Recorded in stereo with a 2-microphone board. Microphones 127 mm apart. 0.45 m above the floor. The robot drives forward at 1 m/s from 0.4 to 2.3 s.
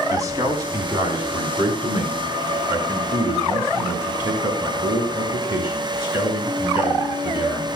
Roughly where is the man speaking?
Right.